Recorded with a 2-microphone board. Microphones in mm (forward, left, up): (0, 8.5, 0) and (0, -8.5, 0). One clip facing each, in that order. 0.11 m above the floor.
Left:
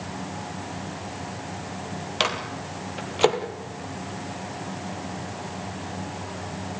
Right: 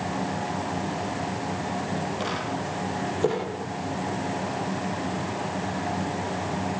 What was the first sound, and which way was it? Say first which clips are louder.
A microwave: left 2 dB; 65° left (ahead or behind).